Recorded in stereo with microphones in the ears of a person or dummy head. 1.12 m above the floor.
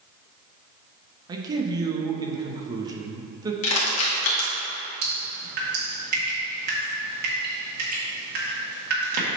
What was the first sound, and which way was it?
A man speaking, 20° right (ahead or behind).